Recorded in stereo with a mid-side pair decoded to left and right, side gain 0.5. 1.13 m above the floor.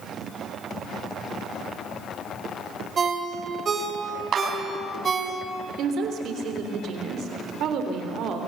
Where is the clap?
55° right, 6.5 m.